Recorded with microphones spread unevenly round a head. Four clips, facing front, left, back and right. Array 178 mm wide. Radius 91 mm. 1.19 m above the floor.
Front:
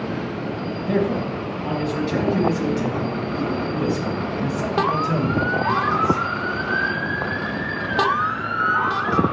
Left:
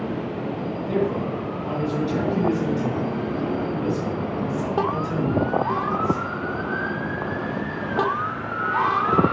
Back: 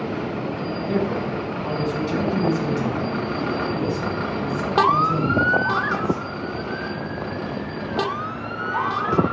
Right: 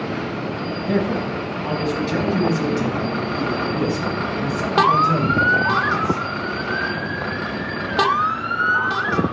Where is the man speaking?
85° right, 6.5 m; by 6.2 s 55° right, 5 m.